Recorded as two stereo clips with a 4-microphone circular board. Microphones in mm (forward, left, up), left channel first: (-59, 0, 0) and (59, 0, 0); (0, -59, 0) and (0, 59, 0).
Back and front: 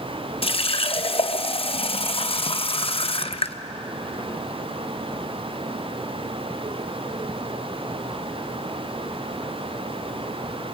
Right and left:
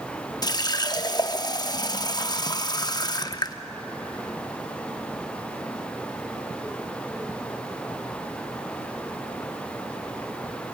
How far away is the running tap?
About 0.6 m.